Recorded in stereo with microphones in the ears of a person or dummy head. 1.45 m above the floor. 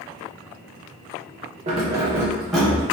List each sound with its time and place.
1.7 s keys jangling: 35° right (ahead or behind), 0.5 m; by 2.8 s 5° left (ahead or behind), 0.9 m